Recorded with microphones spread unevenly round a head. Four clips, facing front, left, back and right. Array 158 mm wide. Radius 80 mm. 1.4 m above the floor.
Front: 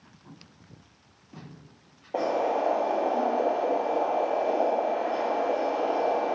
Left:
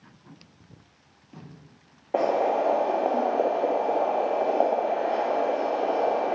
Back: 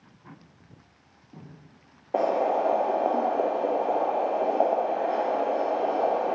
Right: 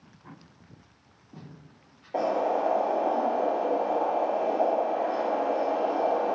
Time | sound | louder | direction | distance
2.1 | boiling | left 3 dB, back 2 dB | 115° left | 0.8 m